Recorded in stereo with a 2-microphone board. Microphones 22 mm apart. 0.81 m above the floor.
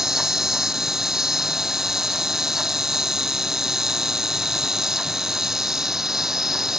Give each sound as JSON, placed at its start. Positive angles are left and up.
{"t": 0.0, "sound": "an insect", "side_deg": -15}